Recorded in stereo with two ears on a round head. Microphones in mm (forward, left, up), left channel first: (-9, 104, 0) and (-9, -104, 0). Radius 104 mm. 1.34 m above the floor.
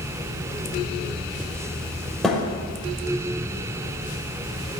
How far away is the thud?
About 6.5 m.